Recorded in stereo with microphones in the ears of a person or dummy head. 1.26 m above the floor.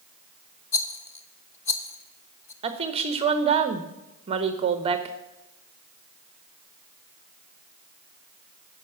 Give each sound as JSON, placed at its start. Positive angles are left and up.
{"t": 0.7, "sound": "a rattle", "side_deg": 10, "distance_m": 0.7}
{"t": 2.6, "sound": "a woman speaking", "side_deg": -30, "distance_m": 0.9}